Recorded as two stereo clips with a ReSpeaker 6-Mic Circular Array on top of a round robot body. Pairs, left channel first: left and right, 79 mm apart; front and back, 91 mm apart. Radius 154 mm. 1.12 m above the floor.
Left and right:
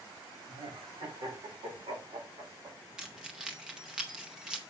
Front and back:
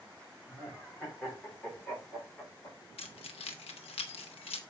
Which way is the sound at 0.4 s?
90° right.